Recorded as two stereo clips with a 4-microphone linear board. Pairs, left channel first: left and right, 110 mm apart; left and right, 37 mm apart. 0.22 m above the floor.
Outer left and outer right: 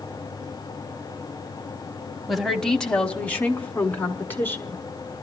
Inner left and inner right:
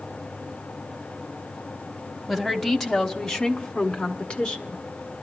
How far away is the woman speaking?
About 1.0 m.